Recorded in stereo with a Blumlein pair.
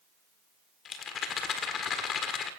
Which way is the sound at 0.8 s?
25° left.